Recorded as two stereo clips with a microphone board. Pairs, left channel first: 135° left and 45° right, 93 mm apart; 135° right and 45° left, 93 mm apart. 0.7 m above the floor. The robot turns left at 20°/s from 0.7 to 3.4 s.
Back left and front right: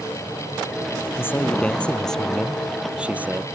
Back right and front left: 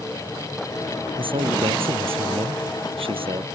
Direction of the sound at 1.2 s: 70° left.